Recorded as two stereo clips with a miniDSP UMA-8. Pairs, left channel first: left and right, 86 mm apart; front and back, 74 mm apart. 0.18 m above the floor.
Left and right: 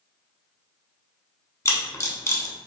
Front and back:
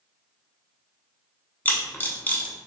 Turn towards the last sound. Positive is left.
turn(degrees=50)